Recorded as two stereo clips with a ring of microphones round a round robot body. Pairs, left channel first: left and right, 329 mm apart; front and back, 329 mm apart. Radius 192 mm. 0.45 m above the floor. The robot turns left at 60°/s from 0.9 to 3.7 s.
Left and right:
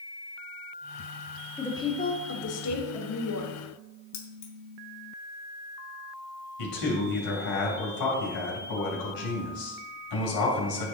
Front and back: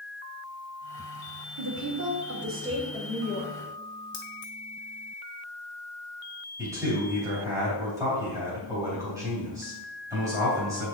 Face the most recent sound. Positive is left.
turn(degrees=100)